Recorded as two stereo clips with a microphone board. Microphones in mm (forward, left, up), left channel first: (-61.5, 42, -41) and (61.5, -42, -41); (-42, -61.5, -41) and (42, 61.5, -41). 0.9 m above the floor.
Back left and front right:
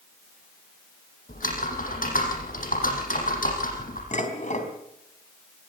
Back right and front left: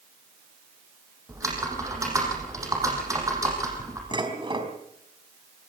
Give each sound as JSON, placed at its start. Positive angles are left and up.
{"t": 1.3, "sound": "typing on a keyboard", "azimuth_deg": 125, "distance_m": 6.5}
{"t": 4.1, "sound": "dishes clattering", "azimuth_deg": 115, "distance_m": 4.0}